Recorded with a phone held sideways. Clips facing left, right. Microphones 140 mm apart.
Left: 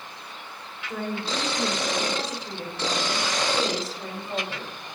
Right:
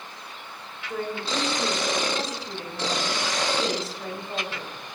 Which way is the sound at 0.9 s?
5° left (ahead or behind).